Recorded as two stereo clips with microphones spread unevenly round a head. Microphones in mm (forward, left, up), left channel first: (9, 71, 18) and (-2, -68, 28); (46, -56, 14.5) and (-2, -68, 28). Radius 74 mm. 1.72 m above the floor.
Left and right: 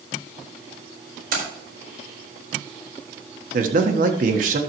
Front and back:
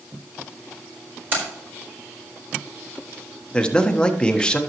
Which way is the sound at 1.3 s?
115° right.